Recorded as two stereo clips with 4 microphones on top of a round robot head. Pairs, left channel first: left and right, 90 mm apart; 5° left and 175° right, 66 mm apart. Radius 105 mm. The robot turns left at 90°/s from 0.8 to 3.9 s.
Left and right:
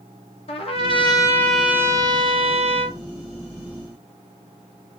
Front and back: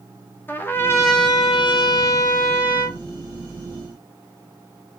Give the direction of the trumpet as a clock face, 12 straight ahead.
10 o'clock.